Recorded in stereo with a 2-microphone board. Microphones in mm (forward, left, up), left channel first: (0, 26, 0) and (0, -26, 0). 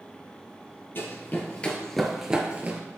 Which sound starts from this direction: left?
Running footsteps, at 0.9 s.